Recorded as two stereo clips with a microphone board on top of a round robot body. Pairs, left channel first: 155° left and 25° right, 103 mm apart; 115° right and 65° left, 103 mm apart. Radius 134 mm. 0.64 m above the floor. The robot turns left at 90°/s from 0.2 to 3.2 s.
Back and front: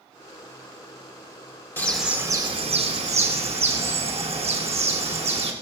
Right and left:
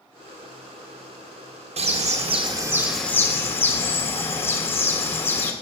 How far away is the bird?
About 2 m.